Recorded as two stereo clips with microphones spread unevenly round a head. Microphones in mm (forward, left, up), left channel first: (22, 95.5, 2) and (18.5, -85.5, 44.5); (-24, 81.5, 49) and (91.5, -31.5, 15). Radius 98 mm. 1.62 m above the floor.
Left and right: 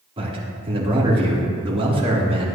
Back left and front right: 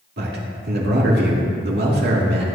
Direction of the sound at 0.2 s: 30° right.